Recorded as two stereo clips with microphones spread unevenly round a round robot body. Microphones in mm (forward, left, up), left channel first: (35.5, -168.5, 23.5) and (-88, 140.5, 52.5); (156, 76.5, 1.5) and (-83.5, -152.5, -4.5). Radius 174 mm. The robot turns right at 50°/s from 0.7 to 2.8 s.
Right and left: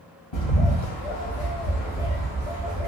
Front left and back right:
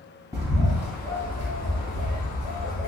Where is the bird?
55° right, 2 m; by 2.9 s 50° left, 2 m.